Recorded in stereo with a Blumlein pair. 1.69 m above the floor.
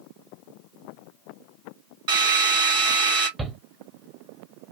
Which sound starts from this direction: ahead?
A shout, at 3.4 s.